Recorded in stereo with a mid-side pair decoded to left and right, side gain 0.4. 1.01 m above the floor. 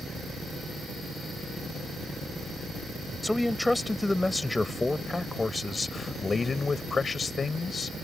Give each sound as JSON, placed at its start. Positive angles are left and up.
{"t": 3.2, "sound": "a man speaking", "azimuth_deg": 5}